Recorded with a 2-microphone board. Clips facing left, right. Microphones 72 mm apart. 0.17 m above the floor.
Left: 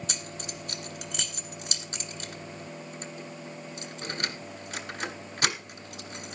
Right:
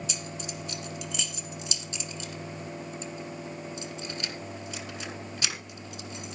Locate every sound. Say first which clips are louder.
0.1 s keys jangling: right 1 dB; 50° left (ahead or behind), 1.6 m